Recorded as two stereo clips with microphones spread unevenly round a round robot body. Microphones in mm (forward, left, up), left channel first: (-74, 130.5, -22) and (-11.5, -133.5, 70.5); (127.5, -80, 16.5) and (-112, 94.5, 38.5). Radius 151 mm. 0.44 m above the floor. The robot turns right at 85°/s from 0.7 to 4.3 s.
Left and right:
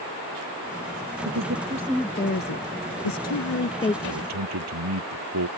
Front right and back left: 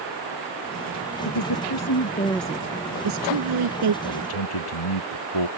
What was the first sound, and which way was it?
A woman speaking, 50° right.